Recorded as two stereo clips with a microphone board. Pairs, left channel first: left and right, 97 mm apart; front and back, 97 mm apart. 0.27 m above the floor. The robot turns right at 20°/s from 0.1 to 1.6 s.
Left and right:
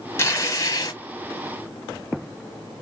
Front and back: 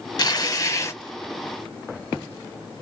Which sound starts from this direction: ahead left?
Tearing paper, at 0.2 s.